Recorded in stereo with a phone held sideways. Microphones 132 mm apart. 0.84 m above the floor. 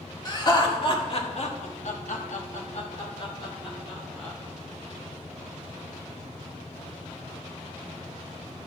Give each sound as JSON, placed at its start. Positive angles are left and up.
{"t": 0.2, "sound": "laughter", "side_deg": 30, "distance_m": 1.9}